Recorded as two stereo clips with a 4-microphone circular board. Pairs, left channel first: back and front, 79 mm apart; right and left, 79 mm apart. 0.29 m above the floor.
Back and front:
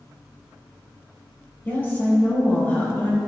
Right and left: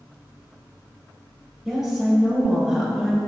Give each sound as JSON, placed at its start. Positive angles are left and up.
{"t": 1.6, "sound": "a woman speaking", "azimuth_deg": 165, "distance_m": 1.1}